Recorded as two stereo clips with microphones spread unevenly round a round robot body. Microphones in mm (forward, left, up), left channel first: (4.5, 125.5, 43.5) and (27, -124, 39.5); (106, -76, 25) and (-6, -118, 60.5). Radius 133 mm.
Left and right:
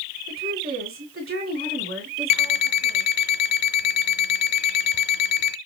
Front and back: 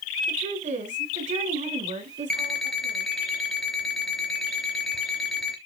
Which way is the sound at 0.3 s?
135° right.